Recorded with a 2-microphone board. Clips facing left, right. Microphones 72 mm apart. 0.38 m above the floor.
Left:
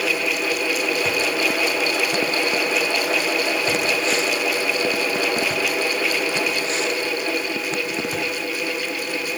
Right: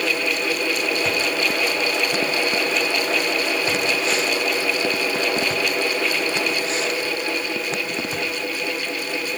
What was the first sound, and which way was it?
Only background noise.